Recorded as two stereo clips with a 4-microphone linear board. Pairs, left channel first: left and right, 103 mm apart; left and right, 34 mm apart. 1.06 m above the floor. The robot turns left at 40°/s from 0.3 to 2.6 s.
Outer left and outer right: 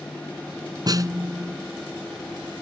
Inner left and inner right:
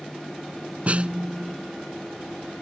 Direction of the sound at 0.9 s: 45° right (ahead or behind).